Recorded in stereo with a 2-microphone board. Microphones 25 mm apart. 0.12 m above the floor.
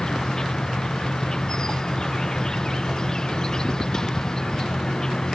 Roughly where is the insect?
Left.